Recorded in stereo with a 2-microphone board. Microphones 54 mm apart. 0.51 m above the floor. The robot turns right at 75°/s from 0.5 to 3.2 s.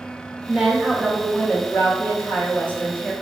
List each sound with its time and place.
0.5 s a woman speaking: 30° right, 2.0 m; by 3.1 s 170° left, 2.0 m